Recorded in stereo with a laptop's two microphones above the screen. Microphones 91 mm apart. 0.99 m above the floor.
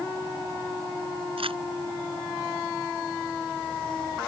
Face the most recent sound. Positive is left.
turn(degrees=-85)